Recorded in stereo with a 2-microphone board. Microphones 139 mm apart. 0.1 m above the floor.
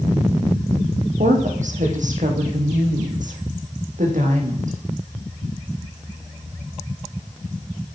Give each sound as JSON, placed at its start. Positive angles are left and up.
{"t": 1.2, "sound": "a woman speaking", "side_deg": -65, "distance_m": 5.0}